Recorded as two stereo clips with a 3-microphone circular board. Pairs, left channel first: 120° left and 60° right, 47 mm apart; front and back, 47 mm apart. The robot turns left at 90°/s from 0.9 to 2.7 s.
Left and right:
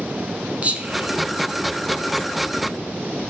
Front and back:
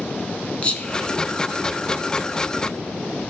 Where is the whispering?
40° right, 1.2 m; by 2.3 s 165° right, 1.2 m.